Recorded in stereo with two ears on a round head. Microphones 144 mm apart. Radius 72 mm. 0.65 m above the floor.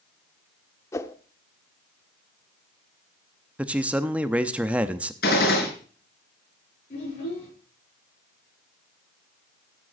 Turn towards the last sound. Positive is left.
turn(degrees=45)  # may be behind; listen again after turning